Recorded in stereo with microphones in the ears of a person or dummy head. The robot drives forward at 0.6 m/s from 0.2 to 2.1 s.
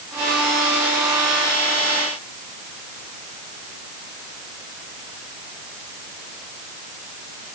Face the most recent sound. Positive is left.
No sound to turn to.